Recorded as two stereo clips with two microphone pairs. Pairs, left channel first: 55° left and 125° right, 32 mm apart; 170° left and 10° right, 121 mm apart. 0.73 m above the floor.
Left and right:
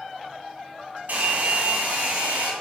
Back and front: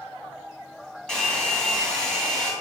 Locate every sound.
1.1 s a hair dryer: 110° right, 2 m